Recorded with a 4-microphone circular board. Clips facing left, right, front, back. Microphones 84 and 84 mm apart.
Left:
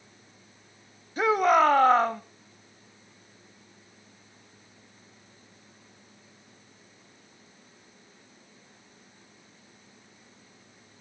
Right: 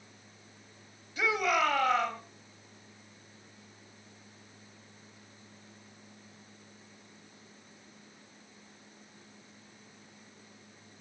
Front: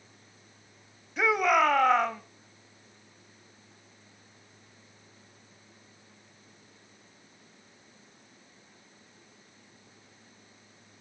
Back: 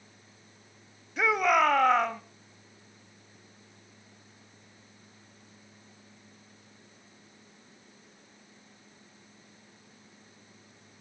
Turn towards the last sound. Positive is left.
turn(degrees=90)